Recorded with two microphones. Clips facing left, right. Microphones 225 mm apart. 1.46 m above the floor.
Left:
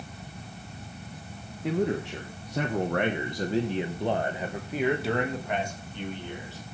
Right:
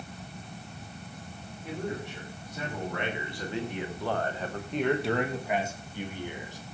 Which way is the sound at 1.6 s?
85° left.